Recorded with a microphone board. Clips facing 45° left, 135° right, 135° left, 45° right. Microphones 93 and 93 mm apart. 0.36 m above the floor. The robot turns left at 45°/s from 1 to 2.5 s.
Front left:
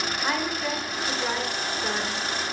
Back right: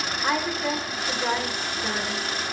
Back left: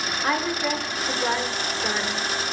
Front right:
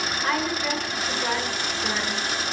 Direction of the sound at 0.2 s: 140° left.